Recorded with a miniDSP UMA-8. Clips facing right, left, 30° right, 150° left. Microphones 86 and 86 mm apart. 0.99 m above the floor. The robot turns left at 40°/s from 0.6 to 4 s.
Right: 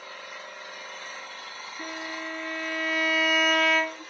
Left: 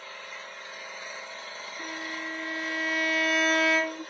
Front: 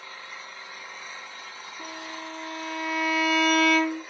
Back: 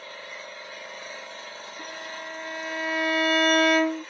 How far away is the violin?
About 2.5 m.